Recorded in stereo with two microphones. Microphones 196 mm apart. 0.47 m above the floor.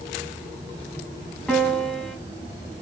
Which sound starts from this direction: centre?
A piano, at 1.5 s.